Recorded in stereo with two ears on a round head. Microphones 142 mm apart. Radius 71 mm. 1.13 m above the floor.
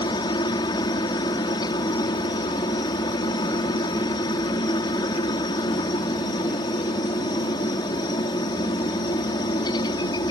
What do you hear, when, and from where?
0.0 s a helicopter: 25° left (ahead or behind)